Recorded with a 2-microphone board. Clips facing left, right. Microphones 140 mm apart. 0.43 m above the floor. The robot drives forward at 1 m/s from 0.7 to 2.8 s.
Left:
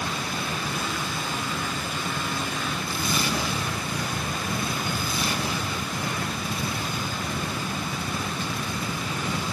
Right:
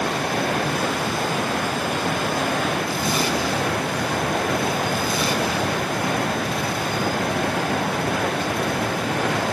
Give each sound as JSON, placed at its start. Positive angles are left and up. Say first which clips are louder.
{"t": 0.0, "sound": "running water", "louder": "right 8 dB", "side_deg": -65}